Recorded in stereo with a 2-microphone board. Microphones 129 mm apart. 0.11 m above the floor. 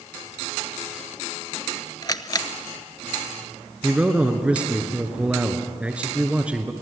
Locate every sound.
2.0 s a camera shutter: 35° left (ahead or behind), 0.6 m
3.8 s a man speaking: 10° right (ahead or behind), 1.8 m